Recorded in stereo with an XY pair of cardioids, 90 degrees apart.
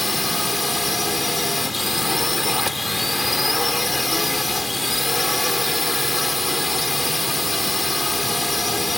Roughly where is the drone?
Ahead.